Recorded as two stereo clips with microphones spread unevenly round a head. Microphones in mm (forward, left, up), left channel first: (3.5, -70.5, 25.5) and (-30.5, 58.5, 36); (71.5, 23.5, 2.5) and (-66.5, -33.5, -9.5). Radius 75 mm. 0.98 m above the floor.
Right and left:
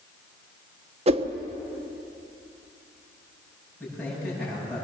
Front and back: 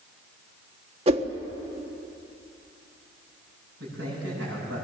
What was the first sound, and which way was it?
A whoosh, 150° left.